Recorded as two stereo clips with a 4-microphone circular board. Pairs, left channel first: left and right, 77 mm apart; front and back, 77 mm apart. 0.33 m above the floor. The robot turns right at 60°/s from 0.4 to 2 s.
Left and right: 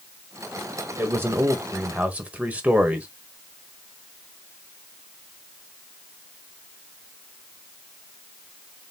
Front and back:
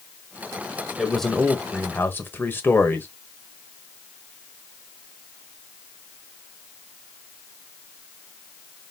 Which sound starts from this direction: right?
A man speaking, at 1.0 s.